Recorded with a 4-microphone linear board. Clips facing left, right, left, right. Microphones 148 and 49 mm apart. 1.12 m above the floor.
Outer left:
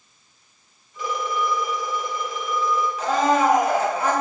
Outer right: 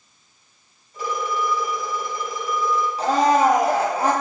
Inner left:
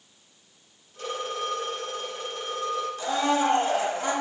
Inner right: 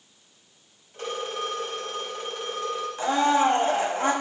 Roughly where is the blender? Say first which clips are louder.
Outer right 3 dB, inner right 4 dB; right.